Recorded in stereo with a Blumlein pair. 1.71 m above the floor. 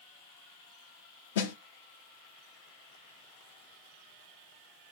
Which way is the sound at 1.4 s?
60° left.